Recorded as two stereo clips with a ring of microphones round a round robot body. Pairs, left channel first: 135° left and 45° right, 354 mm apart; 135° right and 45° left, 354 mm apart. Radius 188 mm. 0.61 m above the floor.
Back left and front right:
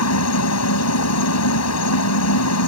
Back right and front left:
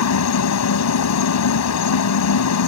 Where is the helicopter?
Straight behind.